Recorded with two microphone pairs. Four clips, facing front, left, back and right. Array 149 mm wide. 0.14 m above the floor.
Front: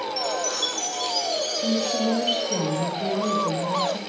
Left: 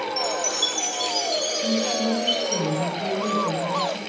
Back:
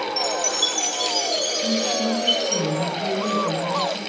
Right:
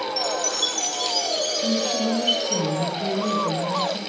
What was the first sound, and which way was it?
A chime, 125° left.